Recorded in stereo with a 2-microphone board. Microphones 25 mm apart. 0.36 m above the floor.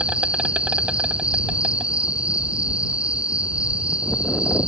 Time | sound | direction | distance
0.0 | an insect | 45° right (ahead or behind) | ?